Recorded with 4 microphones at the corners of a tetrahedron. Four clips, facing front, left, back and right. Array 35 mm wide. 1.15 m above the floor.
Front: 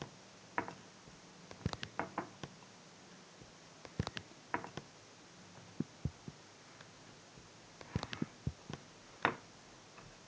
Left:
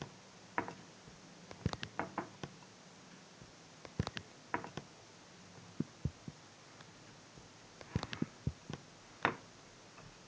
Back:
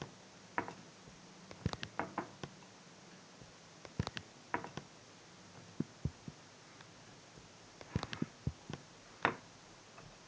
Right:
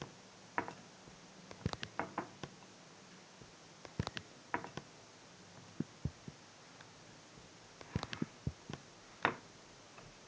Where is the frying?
No frying in this recording.